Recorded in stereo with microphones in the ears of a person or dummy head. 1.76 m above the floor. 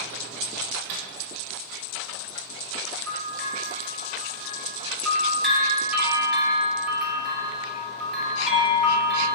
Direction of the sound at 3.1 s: Centre (ahead or behind).